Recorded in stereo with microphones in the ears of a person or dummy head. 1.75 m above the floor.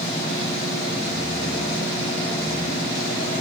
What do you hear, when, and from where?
0.0 s a machine running: 40° left (ahead or behind), 7 m